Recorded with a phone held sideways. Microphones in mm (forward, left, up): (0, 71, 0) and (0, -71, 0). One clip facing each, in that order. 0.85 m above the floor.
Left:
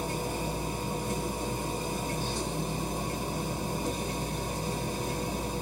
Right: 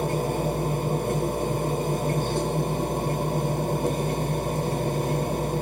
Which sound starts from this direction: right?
A machine running, at 0.0 s.